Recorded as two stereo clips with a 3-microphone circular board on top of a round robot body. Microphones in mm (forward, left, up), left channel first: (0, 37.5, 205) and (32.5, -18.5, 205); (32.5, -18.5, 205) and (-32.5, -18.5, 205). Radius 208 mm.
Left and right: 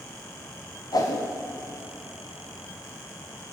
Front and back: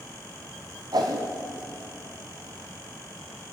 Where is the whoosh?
155° left, 0.8 m.